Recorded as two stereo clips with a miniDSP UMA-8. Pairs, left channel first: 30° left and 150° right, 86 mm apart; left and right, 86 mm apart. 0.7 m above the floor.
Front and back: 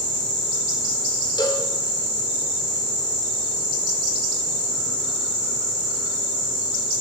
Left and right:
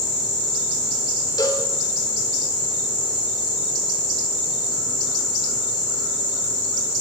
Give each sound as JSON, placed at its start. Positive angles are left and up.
{"t": 1.4, "sound": "a cowbell", "azimuth_deg": 55, "distance_m": 2.5}